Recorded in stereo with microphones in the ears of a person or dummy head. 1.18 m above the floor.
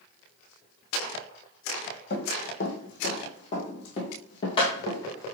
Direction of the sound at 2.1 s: 55° left (ahead or behind).